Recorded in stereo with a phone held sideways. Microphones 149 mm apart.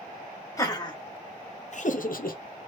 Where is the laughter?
25° left (ahead or behind), 1.1 m; by 2.7 s 80° left, 0.7 m.